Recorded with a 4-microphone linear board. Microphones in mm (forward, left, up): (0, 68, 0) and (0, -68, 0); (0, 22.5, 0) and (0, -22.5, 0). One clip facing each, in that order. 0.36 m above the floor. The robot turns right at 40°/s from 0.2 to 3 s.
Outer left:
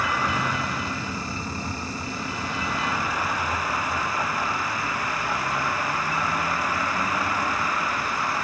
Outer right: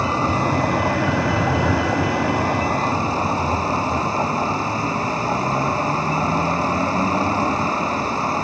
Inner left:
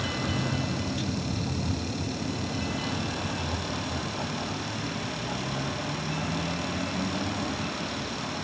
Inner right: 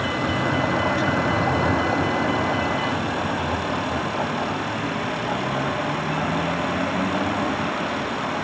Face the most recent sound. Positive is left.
turn(degrees=-35)